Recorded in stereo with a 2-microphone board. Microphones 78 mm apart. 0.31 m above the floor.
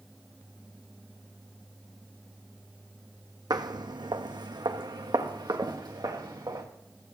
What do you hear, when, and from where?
3.5 s footsteps: 65° right (ahead or behind), 0.8 m; by 6.7 s 50° right (ahead or behind), 2.5 m